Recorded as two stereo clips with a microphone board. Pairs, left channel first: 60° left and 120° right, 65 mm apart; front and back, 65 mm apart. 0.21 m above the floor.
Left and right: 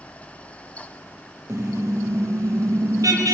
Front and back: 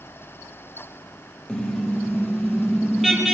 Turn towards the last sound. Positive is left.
turn(degrees=-95)